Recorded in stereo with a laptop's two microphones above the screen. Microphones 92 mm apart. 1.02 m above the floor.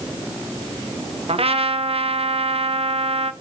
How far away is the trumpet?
About 0.6 m.